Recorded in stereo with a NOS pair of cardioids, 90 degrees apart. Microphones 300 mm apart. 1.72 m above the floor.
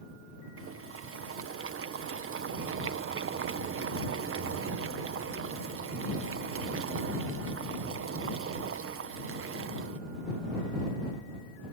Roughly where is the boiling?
Ahead right.